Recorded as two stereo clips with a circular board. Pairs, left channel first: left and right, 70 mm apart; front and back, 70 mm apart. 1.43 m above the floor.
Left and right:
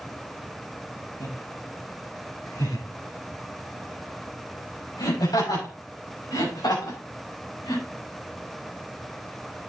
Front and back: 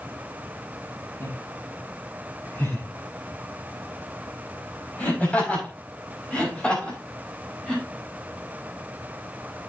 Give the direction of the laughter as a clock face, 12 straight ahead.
10 o'clock.